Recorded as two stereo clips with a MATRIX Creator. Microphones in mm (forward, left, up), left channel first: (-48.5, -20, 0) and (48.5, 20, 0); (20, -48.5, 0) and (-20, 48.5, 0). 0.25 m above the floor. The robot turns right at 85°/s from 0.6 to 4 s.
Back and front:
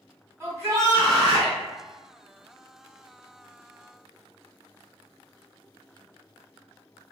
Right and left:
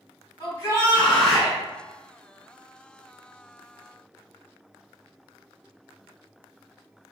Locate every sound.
0.4 s a shout: 35° right, 1.8 m; by 1.6 s 45° left, 1.8 m